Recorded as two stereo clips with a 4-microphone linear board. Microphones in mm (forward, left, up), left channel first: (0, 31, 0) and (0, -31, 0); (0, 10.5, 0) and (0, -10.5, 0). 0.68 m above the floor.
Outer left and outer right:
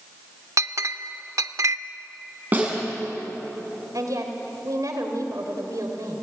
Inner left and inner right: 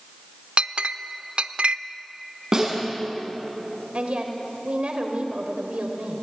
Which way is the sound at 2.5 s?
30° right (ahead or behind).